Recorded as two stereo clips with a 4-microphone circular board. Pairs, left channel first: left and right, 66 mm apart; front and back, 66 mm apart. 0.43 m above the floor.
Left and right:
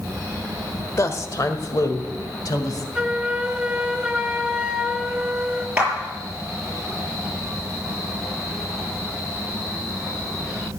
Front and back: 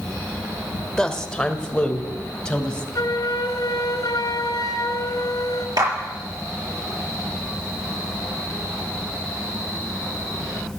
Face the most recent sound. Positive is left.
turn(degrees=-160)